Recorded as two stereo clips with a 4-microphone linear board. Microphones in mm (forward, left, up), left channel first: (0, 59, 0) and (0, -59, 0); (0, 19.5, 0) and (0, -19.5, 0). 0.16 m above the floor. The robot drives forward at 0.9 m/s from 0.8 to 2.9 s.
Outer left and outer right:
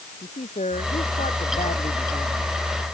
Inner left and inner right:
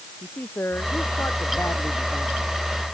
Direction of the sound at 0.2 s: 85° left.